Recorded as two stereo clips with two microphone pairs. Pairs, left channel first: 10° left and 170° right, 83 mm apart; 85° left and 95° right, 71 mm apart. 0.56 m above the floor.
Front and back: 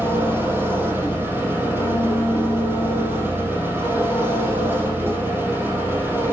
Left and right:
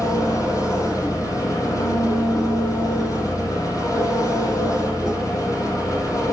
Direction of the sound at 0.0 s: 125° left.